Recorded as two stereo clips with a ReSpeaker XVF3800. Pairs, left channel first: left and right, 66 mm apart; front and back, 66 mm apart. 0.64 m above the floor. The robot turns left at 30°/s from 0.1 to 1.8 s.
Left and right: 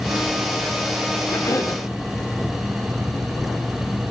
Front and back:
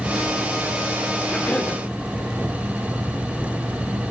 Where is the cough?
70° left, 1.7 m; by 1.8 s 55° left, 1.7 m.